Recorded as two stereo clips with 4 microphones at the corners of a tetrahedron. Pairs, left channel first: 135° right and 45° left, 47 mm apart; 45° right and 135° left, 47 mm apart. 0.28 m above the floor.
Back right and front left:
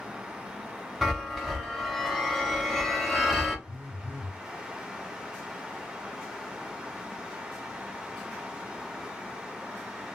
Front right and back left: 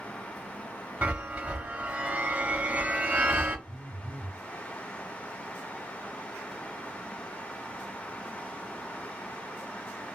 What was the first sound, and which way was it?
A chime, 135° left.